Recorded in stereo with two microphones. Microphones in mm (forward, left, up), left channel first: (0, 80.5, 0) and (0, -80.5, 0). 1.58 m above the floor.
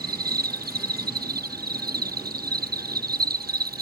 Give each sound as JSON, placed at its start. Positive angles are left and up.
{"t": 0.0, "sound": "an insect", "side_deg": -70}